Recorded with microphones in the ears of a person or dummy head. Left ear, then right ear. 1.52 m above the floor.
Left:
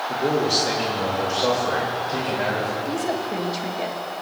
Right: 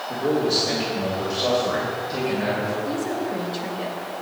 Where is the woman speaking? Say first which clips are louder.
Left 1 dB; 45° left (ahead or behind), 1.9 m.